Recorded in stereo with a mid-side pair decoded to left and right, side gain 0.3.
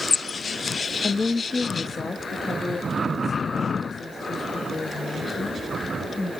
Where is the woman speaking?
40° left, 0.7 m; by 6.3 s 50° left, 4.5 m.